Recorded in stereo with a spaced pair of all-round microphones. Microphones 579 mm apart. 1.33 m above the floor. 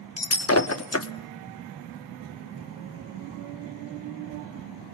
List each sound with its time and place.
0.2 s breaking glass: 25° left (ahead or behind), 1.0 m